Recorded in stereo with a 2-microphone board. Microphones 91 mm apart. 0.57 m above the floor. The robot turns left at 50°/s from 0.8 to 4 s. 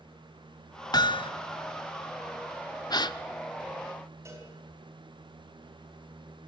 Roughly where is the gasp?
Left.